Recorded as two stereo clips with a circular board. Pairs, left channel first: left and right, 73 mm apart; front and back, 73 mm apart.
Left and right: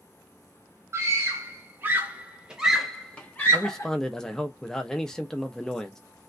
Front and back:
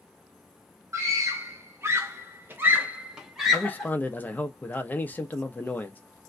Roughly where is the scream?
Behind right.